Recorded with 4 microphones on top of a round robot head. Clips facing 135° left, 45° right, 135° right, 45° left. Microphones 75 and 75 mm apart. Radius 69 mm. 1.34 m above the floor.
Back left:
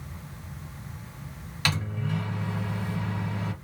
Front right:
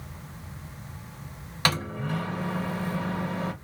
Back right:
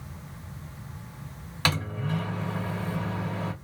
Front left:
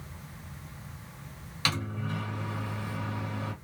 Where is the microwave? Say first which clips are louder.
Front right 3 dB, back right 4 dB; 90° right, 1.1 m.